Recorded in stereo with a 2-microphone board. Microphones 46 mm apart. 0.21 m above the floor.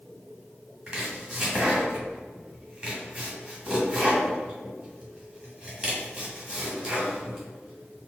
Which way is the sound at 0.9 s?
15° right (ahead or behind).